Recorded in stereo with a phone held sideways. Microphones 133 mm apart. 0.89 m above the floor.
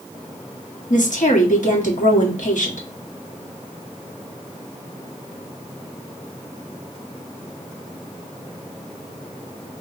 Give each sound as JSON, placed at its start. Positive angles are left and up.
{"t": 0.9, "sound": "a woman speaking", "side_deg": 80, "distance_m": 1.3}